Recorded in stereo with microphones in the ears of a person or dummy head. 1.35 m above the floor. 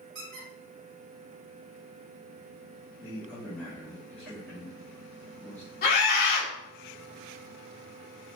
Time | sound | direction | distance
0.1 | a squeak | 60° right (ahead or behind) | 2.5 m
3.0 | a man speaking | 10° left (ahead or behind) | 1.6 m
5.8 | a scream | 50° left (ahead or behind) | 2.5 m